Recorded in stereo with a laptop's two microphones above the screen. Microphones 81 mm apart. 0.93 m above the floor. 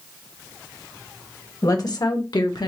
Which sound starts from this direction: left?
A woman speaking, at 1.6 s.